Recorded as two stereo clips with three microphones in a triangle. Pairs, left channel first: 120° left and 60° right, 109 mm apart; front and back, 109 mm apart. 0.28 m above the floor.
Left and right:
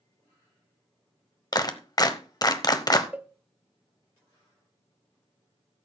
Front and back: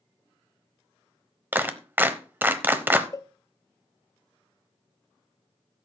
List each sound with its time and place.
1.5 s a clap: 120° left, 0.8 m
3.1 s a cowbell: 5° left, 0.7 m